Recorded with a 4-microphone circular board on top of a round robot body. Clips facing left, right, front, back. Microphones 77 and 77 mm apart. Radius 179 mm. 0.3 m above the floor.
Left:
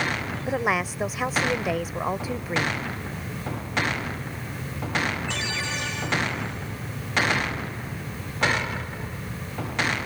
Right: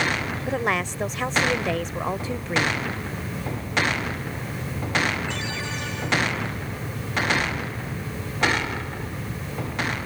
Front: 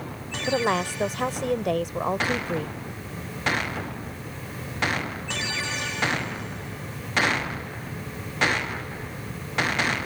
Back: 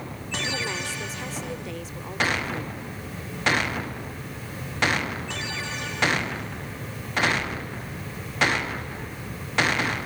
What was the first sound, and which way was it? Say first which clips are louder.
A woman speaking: left 1 dB, front 10 dB; 5° left.